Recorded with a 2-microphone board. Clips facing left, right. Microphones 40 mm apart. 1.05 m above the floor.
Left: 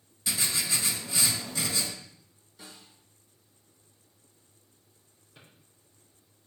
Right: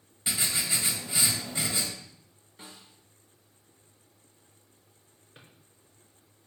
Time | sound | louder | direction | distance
0.3 | writing | even | 25° right (ahead or behind) | 3 m
2.6 | a snare drum | right 1 dB | 40° right (ahead or behind) | 3.5 m
5.3 | a drawer | right 1 dB | 35° right (ahead or behind) | 4.5 m